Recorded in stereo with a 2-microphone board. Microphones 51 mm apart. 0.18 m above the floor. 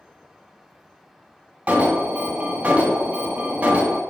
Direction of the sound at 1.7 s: 25° right (ahead or behind).